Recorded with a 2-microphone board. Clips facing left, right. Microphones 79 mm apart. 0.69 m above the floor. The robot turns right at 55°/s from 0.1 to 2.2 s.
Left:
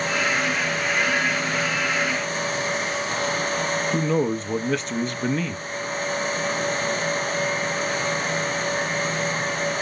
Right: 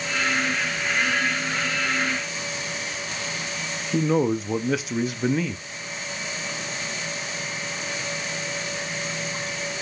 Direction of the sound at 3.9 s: 5° right (ahead or behind).